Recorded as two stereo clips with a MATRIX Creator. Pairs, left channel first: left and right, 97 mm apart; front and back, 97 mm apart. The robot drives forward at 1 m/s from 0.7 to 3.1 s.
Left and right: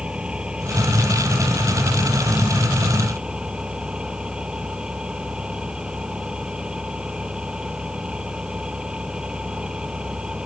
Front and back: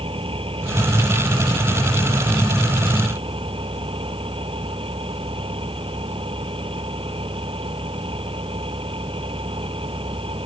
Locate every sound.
0.0 s an engine running: 170° right